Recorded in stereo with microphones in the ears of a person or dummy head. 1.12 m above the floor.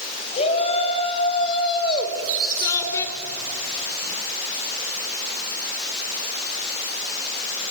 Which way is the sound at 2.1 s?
70° right (ahead or behind).